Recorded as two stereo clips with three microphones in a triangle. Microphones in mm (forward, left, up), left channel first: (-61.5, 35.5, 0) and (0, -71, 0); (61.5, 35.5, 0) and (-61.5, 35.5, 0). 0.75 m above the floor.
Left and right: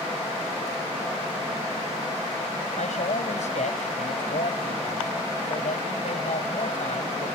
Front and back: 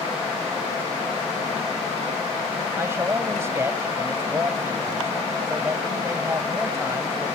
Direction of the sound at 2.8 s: 110° left.